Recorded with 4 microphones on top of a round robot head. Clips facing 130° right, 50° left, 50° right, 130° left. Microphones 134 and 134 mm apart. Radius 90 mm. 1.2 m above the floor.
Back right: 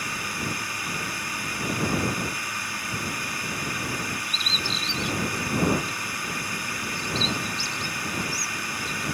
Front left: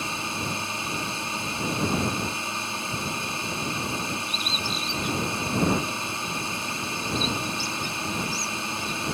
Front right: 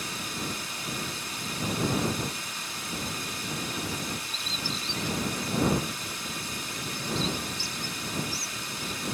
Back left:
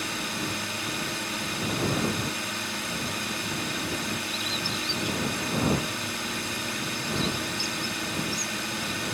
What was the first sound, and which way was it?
A drone, 115° left.